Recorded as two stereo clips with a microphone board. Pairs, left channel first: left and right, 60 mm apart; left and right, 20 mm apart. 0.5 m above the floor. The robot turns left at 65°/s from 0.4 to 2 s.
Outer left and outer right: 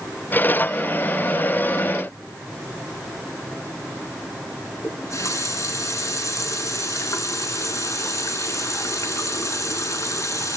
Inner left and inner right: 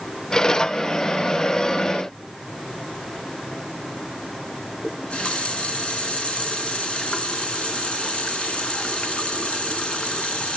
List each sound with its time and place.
4.8 s a running tap: 55° left (ahead or behind), 4 m